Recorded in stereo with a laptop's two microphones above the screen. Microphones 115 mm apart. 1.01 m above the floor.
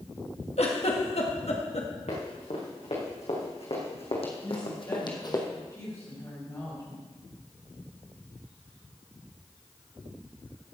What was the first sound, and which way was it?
A giggle, 65° left (ahead or behind).